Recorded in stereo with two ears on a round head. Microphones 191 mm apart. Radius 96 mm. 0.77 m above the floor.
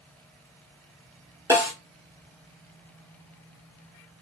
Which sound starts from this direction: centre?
A snare drum, at 1.5 s.